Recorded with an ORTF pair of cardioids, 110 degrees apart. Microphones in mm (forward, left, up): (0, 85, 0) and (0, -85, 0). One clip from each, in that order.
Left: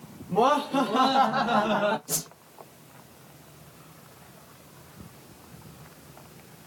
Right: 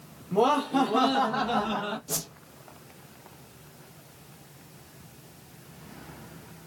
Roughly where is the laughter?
Ahead.